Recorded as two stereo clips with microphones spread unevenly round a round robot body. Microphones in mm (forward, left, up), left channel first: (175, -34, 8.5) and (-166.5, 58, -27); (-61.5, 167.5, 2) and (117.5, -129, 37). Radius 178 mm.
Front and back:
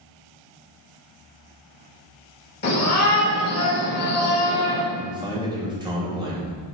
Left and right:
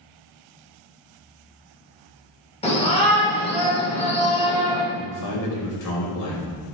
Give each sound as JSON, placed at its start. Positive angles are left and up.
{"t": 2.6, "sound": "a shout", "azimuth_deg": 50, "distance_m": 3.0}
{"t": 4.9, "sound": "a man speaking", "azimuth_deg": 85, "distance_m": 3.5}